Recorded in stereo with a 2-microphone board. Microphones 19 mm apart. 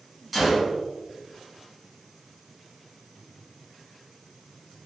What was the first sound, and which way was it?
A gunshot, 5° right (ahead or behind).